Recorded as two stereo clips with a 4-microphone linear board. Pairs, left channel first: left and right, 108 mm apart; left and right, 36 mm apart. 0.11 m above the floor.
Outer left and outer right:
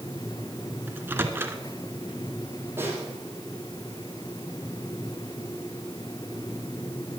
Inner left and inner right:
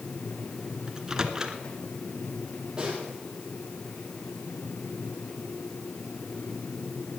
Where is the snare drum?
20° right (ahead or behind), 4 m.